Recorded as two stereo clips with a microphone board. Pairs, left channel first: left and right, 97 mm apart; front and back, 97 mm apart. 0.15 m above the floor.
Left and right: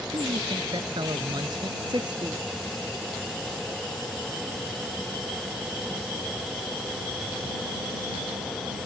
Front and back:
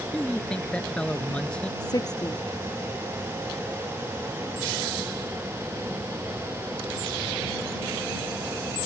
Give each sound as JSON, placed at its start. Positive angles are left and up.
{"t": 0.1, "sound": "a man speaking", "azimuth_deg": -75}
{"t": 1.8, "sound": "a woman speaking", "azimuth_deg": -45}